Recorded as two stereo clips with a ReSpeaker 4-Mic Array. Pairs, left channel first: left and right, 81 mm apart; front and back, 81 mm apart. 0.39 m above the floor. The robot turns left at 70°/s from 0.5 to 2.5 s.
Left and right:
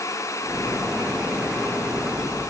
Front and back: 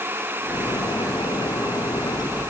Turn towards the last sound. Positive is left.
No sound to turn to.